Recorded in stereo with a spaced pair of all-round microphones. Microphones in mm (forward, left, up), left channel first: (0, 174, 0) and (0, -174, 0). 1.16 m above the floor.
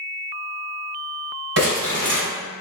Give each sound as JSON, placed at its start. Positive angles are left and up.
{"t": 1.6, "sound": "crumpling", "side_deg": -45, "distance_m": 1.8}